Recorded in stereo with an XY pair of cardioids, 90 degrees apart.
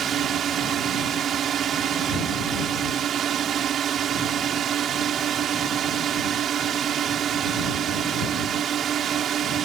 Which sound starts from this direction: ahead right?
A drone, at 0.0 s.